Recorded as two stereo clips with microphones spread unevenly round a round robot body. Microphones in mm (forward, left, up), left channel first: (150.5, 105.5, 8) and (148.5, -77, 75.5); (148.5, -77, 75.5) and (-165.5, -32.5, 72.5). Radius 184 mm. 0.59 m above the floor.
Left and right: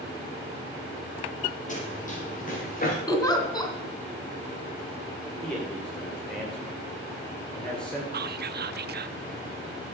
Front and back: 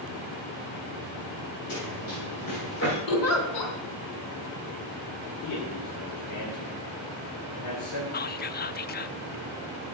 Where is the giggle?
20° left, 2.5 m.